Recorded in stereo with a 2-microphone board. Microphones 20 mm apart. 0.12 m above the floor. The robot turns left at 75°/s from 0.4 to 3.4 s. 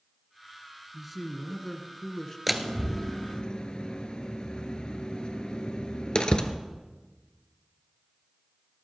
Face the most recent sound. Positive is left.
turn(degrees=50)  # may be behind; listen again after turning